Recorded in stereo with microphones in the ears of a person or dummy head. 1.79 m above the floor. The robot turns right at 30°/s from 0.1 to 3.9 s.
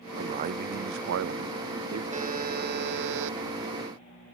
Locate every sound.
0.2 s a man speaking: 140° right; by 2.0 s 85° right
2.1 s a buzzer: 145° right; by 3.4 s 110° right